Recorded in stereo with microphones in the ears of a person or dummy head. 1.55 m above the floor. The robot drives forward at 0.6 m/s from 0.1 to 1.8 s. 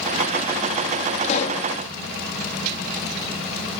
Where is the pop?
40° left (ahead or behind); by 1.7 s 45° left (ahead or behind).